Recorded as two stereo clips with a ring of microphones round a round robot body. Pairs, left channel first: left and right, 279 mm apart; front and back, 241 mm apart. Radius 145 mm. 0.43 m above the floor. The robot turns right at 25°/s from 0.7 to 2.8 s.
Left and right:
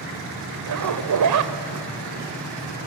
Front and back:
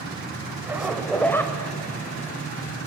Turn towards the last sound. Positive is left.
turn(degrees=-45)